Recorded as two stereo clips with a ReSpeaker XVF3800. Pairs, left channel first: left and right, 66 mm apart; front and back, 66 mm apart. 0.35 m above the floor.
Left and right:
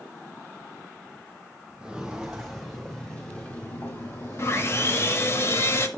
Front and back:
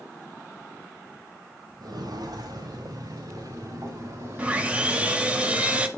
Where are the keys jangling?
I don't hear keys jangling.